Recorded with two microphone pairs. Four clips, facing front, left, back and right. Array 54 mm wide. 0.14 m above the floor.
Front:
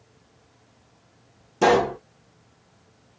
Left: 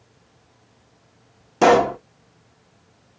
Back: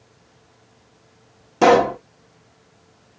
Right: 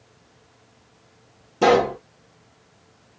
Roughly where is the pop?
Behind left.